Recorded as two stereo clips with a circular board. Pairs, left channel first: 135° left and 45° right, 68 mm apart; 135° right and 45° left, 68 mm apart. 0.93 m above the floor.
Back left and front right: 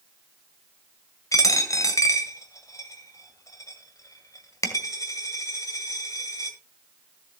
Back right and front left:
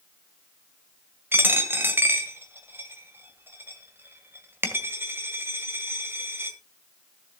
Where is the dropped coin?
100° left, 1.7 m.